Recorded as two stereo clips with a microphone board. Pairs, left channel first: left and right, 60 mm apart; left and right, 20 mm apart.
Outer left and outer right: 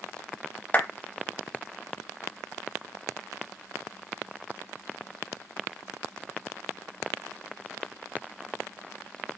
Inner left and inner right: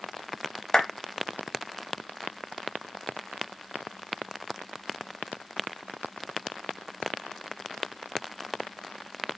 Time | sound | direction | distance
0.7 | a clap | 30° left (ahead or behind) | 0.8 m